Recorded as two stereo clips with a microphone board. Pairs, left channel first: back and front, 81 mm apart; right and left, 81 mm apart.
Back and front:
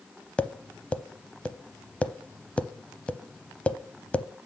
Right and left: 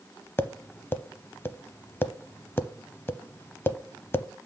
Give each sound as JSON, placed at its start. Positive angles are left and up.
{"t": 0.4, "sound": "tapping", "azimuth_deg": -120, "distance_m": 0.6}